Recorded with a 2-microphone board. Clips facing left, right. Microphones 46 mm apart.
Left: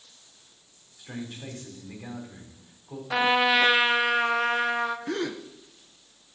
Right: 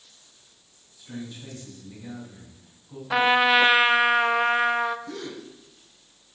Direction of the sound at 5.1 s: 65° left (ahead or behind).